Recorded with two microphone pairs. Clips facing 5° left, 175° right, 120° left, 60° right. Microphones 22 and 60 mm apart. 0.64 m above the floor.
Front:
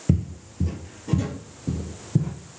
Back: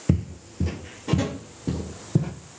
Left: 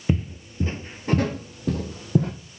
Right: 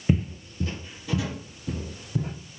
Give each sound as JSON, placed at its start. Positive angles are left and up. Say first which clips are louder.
{"t": 0.1, "sound": "footsteps", "louder": "even, even", "azimuth_deg": -130, "distance_m": 0.6}